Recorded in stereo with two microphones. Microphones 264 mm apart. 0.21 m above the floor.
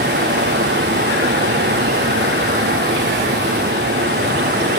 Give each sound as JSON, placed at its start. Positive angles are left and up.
{"t": 0.0, "sound": "running water", "side_deg": -40, "distance_m": 6.0}